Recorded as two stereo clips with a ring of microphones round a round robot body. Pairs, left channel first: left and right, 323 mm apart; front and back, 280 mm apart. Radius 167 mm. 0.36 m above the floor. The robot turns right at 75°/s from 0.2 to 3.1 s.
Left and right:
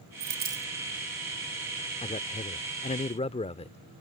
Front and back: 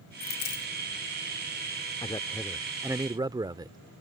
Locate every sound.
0.2 s a dropped coin: 50° right; by 0.7 s 15° right
2.0 s a man speaking: 45° left; by 3.8 s 130° left